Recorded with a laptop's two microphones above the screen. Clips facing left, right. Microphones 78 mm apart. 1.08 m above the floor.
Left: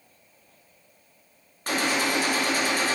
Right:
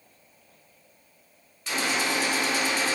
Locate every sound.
1.7 s a gunshot: 50° left (ahead or behind), 0.5 m